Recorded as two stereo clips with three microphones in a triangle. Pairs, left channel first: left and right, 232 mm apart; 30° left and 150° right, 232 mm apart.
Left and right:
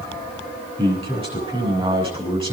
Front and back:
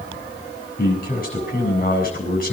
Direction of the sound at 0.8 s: 25° right.